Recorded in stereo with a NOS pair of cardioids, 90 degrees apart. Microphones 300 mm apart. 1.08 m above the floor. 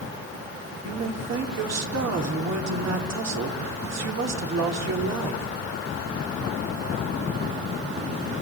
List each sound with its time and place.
0.8 s a man speaking: 60° right, 4 m